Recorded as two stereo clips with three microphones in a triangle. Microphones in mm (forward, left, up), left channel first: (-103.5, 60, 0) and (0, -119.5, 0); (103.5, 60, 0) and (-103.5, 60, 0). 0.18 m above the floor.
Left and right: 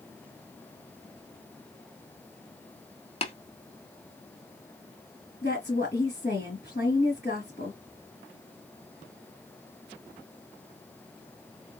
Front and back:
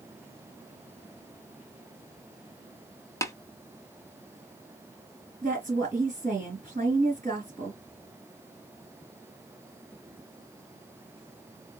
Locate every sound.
3.2 s tapping: 70° left, 0.8 m
5.4 s a woman speaking: 140° left, 3 m